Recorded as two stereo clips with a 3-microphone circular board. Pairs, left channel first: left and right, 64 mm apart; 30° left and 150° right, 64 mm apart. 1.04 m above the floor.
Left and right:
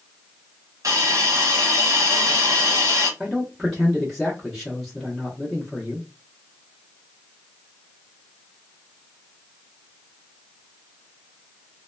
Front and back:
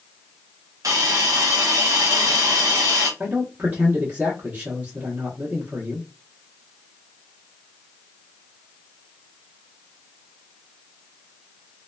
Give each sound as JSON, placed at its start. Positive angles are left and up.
{"t": 0.8, "sound": "a hiss", "azimuth_deg": -120, "distance_m": 0.9}
{"t": 3.2, "sound": "a man speaking", "azimuth_deg": 175, "distance_m": 0.8}